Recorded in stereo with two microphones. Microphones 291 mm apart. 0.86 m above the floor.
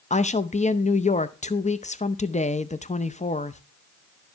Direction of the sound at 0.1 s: 25° left (ahead or behind).